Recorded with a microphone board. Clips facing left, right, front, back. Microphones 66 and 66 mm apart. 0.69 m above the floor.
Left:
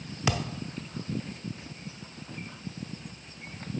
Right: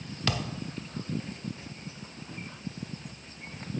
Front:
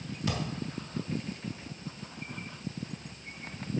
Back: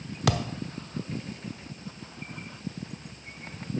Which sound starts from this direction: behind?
A thud, at 0.3 s.